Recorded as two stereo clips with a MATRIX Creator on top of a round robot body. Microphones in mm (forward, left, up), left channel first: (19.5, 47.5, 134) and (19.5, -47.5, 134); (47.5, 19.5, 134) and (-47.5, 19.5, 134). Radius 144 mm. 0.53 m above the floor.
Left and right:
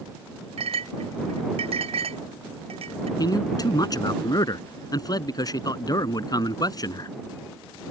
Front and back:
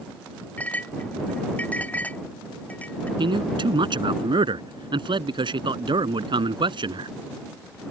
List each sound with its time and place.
0.6 s a clink: 75° right
3.2 s a man speaking: 140° left